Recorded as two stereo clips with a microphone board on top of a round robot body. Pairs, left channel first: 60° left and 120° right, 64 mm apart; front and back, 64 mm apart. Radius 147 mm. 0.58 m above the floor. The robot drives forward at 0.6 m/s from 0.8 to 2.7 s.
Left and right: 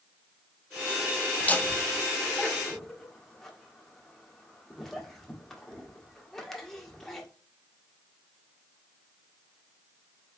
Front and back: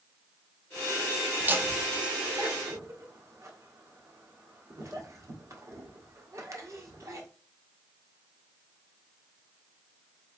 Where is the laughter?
120° left, 1.2 m; by 7.3 s 145° left, 1.7 m.